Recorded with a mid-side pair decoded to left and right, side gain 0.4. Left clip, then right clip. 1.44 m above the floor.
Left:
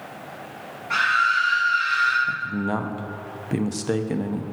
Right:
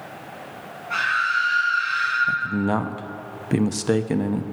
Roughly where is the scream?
Ahead left.